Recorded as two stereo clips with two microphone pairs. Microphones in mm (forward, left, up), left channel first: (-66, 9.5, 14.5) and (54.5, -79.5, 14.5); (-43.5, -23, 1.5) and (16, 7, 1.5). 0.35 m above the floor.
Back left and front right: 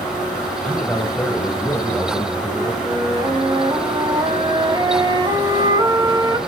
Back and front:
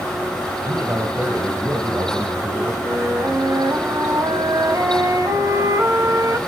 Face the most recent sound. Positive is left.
turn(degrees=15)